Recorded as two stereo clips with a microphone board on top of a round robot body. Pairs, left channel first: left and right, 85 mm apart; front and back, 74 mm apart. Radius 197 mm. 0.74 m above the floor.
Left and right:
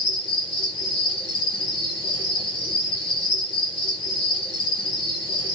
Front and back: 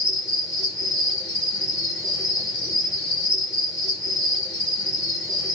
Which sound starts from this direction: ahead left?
An insect, at 0.0 s.